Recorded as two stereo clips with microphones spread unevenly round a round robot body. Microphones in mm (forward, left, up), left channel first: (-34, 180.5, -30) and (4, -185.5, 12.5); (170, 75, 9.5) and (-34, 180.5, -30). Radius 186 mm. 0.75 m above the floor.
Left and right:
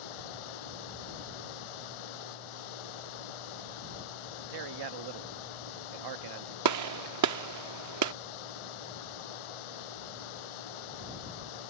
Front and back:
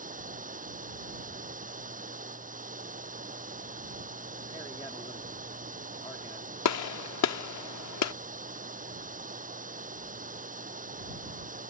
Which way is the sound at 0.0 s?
95° left.